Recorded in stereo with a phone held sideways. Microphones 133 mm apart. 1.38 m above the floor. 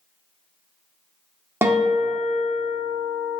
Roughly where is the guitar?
Centre.